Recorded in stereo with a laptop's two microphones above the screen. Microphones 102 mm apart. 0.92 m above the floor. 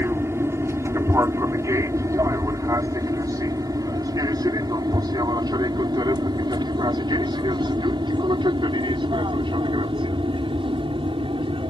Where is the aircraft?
25° right (ahead or behind); by 11.7 s 60° right (ahead or behind).